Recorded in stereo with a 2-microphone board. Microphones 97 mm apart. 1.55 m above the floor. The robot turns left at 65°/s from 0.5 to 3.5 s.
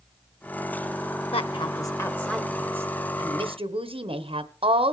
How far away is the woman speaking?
About 1.1 m.